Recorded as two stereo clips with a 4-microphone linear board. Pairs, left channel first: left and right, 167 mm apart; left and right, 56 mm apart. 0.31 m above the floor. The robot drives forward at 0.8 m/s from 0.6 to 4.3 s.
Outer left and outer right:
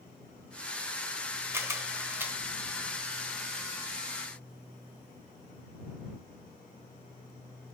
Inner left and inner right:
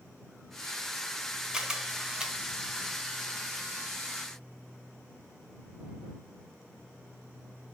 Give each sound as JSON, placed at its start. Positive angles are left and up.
{"t": 1.5, "sound": "a camera shutter", "side_deg": -15, "distance_m": 1.0}